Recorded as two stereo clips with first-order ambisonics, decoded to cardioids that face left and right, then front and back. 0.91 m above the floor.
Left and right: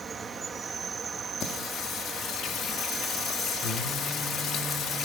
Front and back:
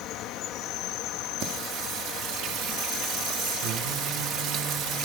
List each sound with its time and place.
0.0 s an insect: 20° right, 1.4 m
1.4 s singing: 140° left, 2 m